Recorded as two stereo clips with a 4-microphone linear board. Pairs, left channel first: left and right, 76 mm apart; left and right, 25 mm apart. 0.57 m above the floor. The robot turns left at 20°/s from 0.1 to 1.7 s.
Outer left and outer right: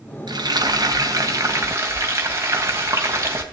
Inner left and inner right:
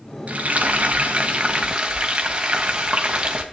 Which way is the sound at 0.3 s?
65° right (ahead or behind).